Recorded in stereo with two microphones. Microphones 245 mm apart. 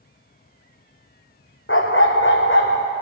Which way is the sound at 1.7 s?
55° left (ahead or behind).